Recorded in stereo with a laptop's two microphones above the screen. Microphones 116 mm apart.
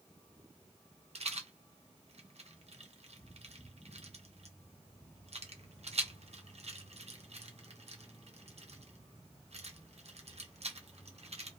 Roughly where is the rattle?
Right.